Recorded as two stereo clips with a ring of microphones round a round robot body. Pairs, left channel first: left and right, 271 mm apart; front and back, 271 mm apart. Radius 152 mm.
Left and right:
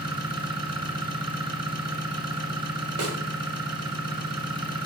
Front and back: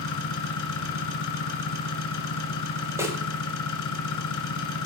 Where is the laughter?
No laughter in this recording.